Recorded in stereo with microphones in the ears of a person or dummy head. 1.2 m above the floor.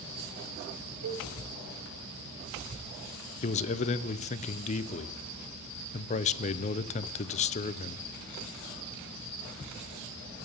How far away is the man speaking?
About 0.7 m.